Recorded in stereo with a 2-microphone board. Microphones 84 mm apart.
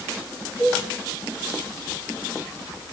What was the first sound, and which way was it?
A cowbell, 60° left (ahead or behind).